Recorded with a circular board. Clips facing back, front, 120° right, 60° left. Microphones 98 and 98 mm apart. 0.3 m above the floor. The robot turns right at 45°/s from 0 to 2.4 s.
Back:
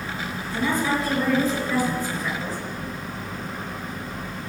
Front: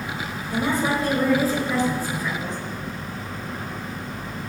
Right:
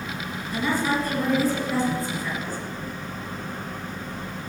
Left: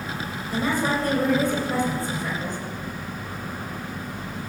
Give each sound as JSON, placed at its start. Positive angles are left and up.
{"t": 0.5, "sound": "a woman speaking", "azimuth_deg": 10, "distance_m": 5.0}